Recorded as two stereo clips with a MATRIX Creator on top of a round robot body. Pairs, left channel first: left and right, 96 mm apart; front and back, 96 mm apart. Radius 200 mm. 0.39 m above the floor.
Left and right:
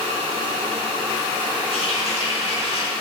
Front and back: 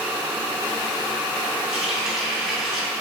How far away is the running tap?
About 3 m.